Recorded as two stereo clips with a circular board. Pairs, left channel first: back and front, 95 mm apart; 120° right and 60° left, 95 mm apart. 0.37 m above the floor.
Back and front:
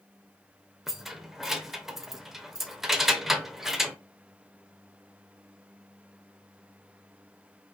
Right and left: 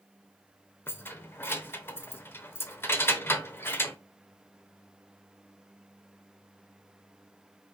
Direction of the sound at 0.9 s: 80° right.